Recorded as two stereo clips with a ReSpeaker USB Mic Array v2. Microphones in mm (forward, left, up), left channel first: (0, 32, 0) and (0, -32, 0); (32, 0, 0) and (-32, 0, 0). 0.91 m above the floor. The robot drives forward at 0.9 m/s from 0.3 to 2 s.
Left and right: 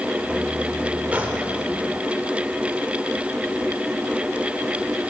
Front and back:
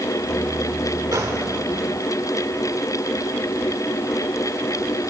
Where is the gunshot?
155° right, 1.6 m; by 1.4 s 160° right, 1.8 m.